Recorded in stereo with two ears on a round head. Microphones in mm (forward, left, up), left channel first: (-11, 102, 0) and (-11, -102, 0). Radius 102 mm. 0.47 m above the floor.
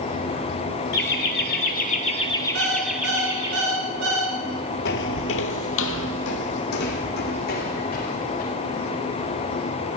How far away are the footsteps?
About 0.7 m.